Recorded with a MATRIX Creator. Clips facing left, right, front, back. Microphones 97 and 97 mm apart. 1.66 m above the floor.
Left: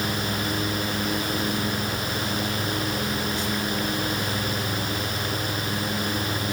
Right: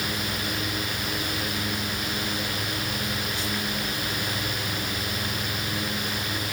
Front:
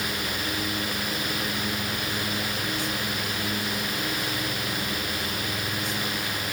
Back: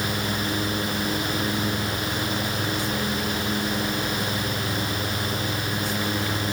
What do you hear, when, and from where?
Only background noise.